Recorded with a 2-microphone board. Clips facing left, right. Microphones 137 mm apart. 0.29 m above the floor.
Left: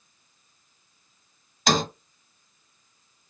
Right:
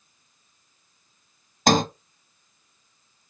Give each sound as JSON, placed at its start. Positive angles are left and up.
{"t": 1.7, "sound": "a sliding door", "side_deg": -45, "distance_m": 0.5}